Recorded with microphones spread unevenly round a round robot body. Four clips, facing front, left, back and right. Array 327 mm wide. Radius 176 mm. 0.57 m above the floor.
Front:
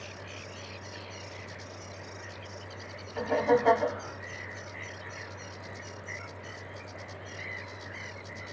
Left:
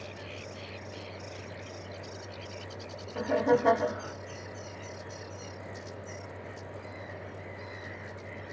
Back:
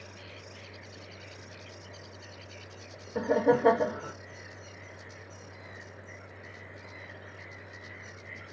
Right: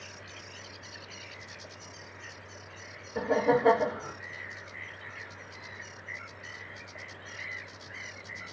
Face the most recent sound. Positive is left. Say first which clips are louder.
# even, back 1 dB
turn(degrees=-170)